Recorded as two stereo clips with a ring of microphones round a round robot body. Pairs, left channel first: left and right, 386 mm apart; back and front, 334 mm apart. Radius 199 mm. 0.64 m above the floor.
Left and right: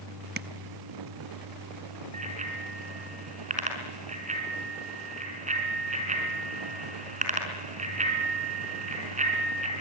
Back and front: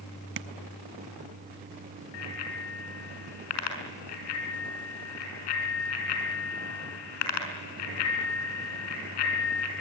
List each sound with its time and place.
0.4 s tapping: 35° right, 0.8 m
2.1 s a bicycle bell: 165° right, 5 m